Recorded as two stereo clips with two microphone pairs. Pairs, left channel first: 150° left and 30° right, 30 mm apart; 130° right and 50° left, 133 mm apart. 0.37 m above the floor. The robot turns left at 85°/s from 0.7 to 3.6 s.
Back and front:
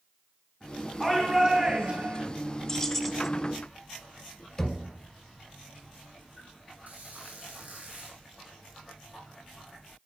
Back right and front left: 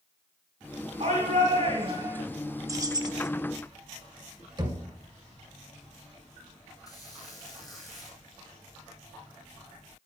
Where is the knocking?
80° left, 1.3 m.